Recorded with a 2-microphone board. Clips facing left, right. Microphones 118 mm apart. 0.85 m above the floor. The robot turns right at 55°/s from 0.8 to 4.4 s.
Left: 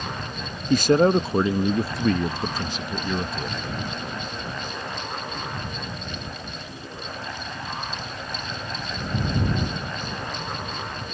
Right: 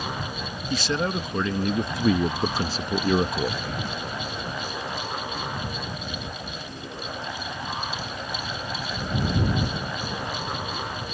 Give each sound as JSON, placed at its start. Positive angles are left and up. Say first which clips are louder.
{"t": 0.7, "sound": "a man speaking", "louder": "left 9 dB", "azimuth_deg": 115}